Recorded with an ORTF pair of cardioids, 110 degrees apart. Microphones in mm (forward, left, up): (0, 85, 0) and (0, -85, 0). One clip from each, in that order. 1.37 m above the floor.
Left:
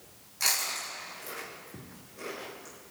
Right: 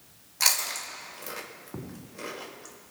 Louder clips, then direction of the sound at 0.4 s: Right 3 dB; 45° right.